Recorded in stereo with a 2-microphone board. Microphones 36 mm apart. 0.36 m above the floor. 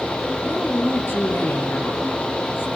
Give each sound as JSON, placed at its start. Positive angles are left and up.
{"t": 0.4, "sound": "a woman speaking", "side_deg": 60, "distance_m": 9.0}